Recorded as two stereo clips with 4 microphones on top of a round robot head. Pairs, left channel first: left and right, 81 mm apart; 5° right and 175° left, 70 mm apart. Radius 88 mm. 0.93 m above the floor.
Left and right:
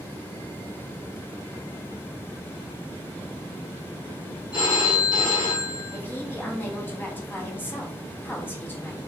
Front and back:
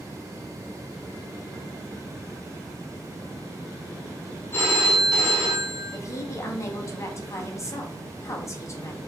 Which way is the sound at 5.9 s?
30° left.